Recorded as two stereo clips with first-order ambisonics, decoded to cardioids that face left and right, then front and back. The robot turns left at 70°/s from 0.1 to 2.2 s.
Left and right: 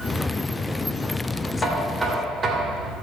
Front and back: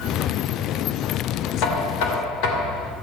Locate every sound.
1.6 s knocking: 20° left, 2.5 m; by 2.9 s 20° right, 2.5 m